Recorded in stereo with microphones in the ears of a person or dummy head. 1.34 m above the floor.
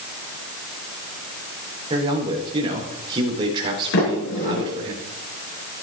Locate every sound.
1.9 s a man speaking: 25° right (ahead or behind), 3.5 m
3.9 s a sliding door: 60° left (ahead or behind), 5.5 m